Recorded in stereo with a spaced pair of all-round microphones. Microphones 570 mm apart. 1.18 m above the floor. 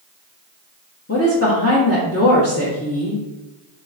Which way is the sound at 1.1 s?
25° left (ahead or behind).